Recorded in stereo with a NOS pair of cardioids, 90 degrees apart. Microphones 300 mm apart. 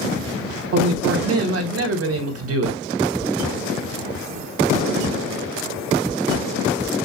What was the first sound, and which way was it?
A man speaking, 50° right.